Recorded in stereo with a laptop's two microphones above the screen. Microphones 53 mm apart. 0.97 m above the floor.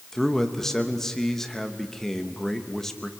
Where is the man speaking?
5° left (ahead or behind), 1.1 m.